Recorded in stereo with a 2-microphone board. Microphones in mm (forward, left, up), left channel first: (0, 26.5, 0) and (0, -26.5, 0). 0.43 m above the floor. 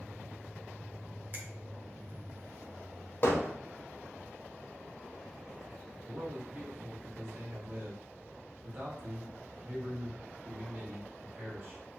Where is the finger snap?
35° right (ahead or behind), 0.7 m.